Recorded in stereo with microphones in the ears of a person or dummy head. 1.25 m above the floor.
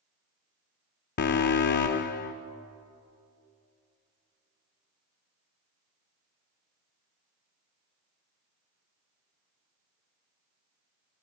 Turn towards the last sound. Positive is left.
turn(degrees=55)  # may be behind; listen again after turning